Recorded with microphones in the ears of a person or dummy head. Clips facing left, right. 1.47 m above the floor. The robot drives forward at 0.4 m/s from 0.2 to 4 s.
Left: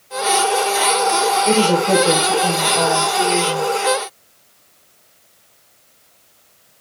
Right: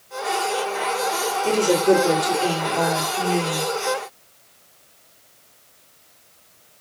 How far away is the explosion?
No explosion in this recording.